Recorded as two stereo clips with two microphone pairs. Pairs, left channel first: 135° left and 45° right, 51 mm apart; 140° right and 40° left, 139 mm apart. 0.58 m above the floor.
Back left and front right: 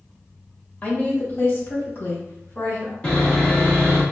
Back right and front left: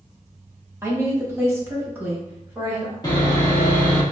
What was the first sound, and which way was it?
A woman speaking, 95° left.